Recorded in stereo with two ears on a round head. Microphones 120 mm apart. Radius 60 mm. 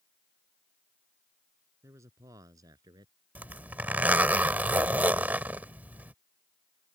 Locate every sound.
1.8 s a man speaking: 20° right (ahead or behind); by 3.1 s 30° right (ahead or behind)
3.4 s a zipper: 10° right (ahead or behind)